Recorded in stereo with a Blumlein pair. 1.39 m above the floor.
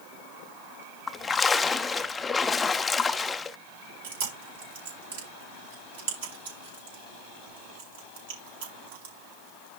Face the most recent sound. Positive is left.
turn(degrees=-60)